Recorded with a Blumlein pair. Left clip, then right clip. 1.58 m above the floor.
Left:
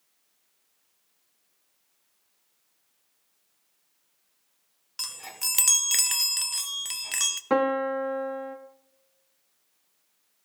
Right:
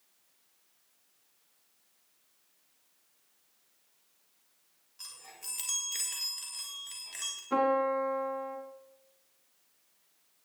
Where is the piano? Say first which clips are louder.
Left 2 dB; 50° left, 1.8 m.